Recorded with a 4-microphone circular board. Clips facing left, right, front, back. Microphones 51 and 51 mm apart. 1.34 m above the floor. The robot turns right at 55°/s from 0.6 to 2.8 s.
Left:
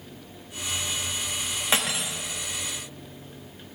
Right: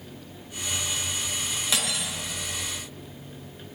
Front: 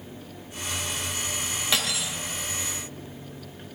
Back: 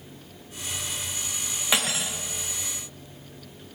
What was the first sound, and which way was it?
Cutlery clinking, 125° left.